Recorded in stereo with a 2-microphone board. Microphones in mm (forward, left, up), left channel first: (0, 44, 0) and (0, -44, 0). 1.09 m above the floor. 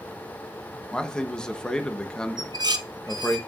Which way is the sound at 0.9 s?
10° left (ahead or behind).